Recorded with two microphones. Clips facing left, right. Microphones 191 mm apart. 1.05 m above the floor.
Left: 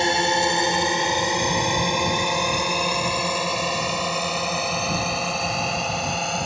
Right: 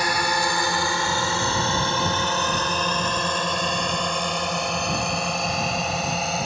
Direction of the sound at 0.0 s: 25° left (ahead or behind).